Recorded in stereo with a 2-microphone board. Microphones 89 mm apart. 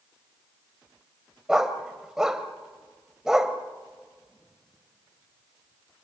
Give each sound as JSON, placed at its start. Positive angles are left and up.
{"t": 1.5, "sound": "a dog barking", "side_deg": -5, "distance_m": 1.6}